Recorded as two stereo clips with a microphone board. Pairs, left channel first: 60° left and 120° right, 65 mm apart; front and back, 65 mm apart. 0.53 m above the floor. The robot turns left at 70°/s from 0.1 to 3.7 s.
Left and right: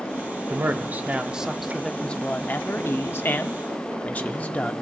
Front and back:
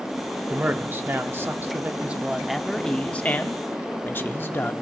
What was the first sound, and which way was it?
A man speaking, 125° right.